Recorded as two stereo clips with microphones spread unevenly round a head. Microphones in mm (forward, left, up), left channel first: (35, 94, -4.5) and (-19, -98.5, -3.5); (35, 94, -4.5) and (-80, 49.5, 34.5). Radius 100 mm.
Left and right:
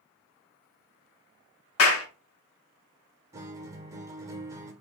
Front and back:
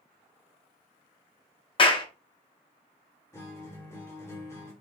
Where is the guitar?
65° right, 0.9 m.